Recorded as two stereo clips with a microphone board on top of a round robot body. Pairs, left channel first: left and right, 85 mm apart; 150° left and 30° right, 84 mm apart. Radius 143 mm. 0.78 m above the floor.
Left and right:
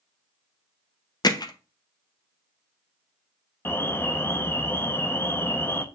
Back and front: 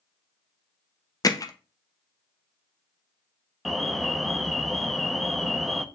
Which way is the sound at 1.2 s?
115° left.